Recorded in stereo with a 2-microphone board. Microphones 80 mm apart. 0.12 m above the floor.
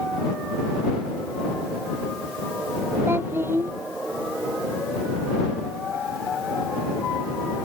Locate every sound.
3.1 s a child speaking: 30° right (ahead or behind)